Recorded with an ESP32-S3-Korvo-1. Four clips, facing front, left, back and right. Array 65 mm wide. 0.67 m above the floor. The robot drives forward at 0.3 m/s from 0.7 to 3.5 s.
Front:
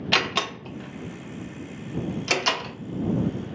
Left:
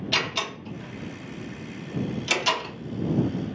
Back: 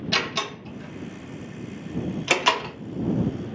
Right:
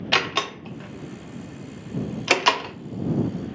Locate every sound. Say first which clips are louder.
0.1 s a door slam: right 6 dB, front 3 dB; 65° right, 0.7 m; by 2.8 s 115° right, 0.7 m